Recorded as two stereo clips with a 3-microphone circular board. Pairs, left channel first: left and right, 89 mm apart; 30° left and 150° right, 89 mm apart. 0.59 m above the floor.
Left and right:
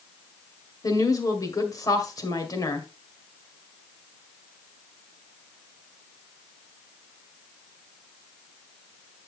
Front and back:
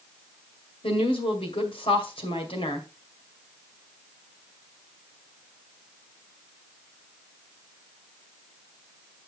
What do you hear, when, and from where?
0.8 s a woman speaking: 40° left, 2 m